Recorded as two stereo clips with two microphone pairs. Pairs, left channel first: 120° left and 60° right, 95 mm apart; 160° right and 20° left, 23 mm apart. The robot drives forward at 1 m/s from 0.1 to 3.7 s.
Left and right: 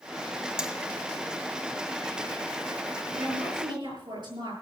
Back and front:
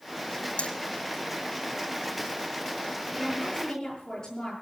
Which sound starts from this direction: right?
A woman speaking, at 3.2 s.